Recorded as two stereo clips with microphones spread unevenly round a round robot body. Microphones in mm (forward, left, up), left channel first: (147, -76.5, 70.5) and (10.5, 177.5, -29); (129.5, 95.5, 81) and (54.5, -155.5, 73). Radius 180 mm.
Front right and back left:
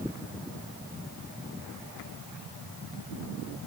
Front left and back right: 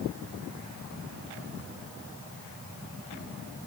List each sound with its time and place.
Only background noise.